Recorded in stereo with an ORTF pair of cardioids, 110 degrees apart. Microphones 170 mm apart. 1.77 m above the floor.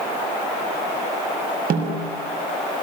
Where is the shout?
I don't hear a shout.